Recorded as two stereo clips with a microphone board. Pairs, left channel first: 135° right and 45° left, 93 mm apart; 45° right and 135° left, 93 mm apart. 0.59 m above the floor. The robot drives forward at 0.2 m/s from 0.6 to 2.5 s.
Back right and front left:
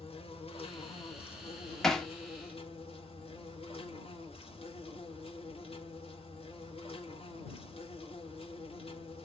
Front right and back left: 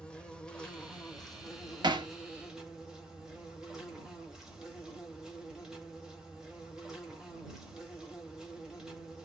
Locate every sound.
0.0 s an insect: 125° right, 0.9 m; by 9.3 s 140° right, 1.1 m
1.8 s hammering: 140° left, 0.8 m; by 2.1 s 145° left, 0.9 m